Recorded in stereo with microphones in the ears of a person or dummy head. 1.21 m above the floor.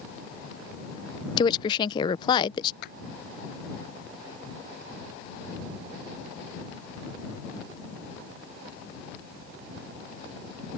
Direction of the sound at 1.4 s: 25° left (ahead or behind).